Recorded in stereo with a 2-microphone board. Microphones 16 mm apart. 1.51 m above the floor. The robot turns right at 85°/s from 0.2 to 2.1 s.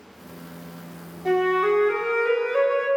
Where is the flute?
30° right, 1.5 m; by 2.9 s 45° left, 1.5 m.